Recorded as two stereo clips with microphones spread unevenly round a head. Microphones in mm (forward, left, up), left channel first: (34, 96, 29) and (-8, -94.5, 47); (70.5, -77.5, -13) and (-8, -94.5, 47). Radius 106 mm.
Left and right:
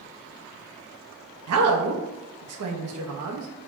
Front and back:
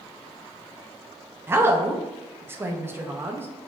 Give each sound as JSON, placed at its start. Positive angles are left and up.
{"t": 1.5, "sound": "a woman speaking", "azimuth_deg": -115, "distance_m": 0.5}